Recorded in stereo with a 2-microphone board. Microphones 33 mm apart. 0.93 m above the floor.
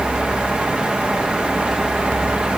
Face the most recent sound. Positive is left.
No sound to turn to.